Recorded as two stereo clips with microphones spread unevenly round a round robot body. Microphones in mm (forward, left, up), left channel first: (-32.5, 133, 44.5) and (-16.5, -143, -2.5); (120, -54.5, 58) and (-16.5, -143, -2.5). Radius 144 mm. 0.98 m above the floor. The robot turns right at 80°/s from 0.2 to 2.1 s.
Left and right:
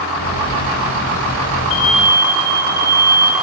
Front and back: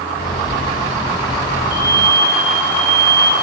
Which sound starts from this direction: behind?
An alarm, at 1.7 s.